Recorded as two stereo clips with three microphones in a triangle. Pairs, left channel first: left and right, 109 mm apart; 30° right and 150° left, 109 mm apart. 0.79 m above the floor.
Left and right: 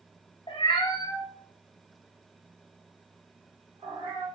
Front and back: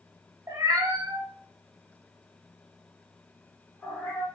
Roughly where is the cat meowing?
Left.